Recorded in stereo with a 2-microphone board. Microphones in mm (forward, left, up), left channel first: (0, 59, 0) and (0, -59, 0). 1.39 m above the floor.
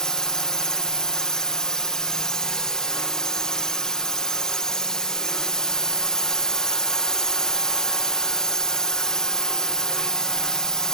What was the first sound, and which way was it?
A drone, 5° left (ahead or behind).